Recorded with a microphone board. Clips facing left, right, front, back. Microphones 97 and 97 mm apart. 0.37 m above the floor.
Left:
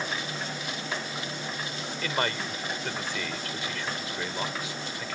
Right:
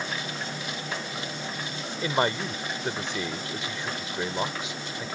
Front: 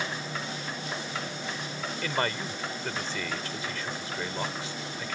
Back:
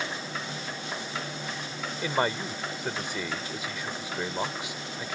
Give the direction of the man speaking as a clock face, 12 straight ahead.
4 o'clock.